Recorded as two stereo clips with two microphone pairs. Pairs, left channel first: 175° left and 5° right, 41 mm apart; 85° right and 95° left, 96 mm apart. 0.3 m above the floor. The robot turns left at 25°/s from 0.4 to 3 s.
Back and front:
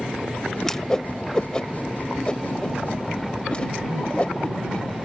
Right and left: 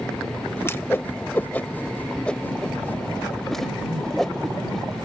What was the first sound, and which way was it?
A whoosh, 120° right.